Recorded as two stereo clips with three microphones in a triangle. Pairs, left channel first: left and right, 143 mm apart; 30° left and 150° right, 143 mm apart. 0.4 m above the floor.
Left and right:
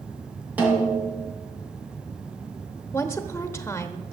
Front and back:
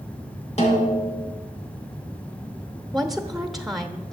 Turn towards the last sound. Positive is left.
turn(degrees=120)